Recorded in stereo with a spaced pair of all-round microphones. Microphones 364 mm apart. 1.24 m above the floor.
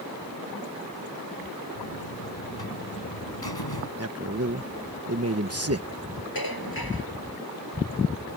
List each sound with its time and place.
1.8 s a buzzer: 90° left
4.0 s a man speaking: 40° right (ahead or behind)
6.3 s dishes clattering: 75° left (ahead or behind)